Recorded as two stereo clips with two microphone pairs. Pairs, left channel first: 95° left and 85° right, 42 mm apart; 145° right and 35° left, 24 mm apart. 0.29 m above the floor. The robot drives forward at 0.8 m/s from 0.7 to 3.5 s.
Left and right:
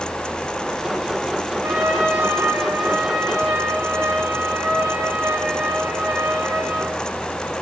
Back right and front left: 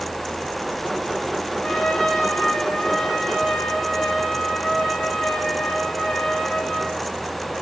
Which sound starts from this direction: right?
A trumpet, at 1.6 s.